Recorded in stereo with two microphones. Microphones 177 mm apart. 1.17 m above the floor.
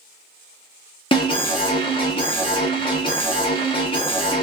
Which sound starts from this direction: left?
An alarm, at 1.1 s.